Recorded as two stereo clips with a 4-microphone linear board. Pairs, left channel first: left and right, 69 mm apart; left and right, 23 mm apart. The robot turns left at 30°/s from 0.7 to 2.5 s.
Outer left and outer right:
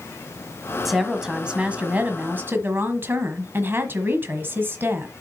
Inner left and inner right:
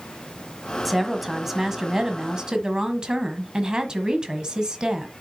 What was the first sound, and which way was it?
A woman speaking, straight ahead.